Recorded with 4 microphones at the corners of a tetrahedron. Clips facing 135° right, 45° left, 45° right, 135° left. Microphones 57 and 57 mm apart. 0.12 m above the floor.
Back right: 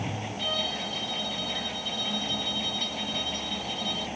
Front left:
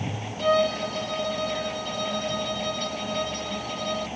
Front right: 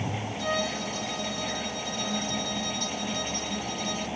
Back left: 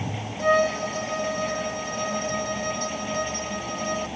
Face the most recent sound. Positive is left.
turn(degrees=85)